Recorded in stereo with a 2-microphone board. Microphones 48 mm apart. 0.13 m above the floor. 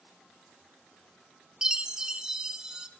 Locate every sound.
1.6 s a chime: 15° right (ahead or behind), 0.8 m